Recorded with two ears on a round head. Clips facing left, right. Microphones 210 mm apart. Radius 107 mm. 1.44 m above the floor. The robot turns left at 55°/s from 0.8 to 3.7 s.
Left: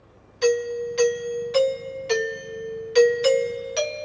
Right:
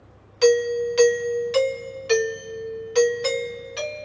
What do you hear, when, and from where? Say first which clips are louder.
0.4 s a doorbell: right 4 dB; 95° right, 1.5 m; by 4.0 s 105° left, 1.5 m